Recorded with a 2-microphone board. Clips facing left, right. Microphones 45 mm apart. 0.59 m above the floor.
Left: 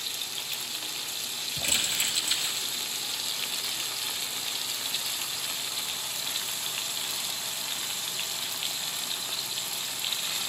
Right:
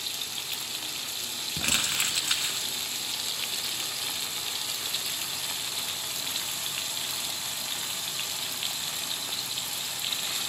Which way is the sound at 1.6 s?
65° right (ahead or behind).